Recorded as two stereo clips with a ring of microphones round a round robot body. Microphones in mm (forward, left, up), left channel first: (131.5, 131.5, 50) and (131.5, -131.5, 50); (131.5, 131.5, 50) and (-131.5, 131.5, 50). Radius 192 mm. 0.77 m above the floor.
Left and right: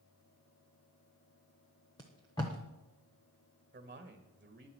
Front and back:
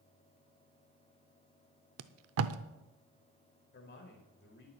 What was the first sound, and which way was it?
Tape being pulled, 165° left.